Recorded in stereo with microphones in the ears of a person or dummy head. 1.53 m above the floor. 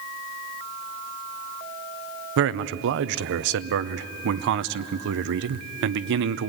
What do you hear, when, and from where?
2.4 s a man speaking: 65° right (ahead or behind), 0.8 m